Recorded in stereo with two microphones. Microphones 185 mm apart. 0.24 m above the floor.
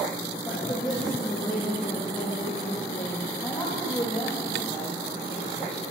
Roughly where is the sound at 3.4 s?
Left.